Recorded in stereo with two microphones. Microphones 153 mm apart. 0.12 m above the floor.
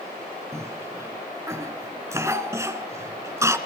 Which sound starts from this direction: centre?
A cough, at 0.5 s.